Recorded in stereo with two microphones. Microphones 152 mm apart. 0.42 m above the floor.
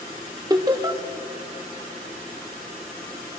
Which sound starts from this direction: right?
Laughter, at 0.5 s.